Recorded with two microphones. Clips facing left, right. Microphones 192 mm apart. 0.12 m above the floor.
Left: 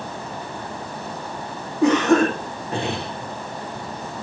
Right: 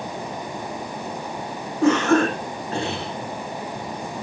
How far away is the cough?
About 8 m.